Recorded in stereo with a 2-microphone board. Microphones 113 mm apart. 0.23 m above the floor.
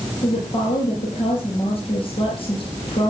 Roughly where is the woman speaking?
Left.